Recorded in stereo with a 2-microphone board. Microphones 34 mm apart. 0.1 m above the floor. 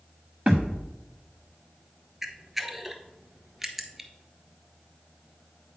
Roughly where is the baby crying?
No baby crying in this recording.